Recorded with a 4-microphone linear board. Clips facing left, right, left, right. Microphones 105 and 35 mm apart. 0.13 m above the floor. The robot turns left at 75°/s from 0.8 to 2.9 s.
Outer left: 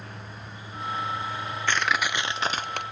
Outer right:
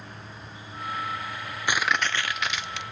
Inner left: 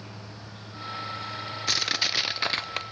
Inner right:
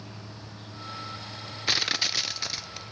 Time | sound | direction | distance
0.0 | an insect | 125° left | 8.5 m
1.7 | crushing | 165° right | 0.5 m